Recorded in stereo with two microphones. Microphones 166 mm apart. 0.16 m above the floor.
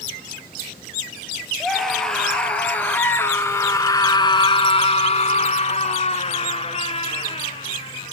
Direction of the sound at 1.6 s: Centre (ahead or behind).